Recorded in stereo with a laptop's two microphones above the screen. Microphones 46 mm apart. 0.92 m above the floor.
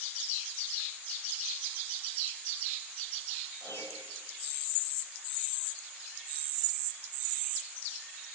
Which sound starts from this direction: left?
A piano, at 3.6 s.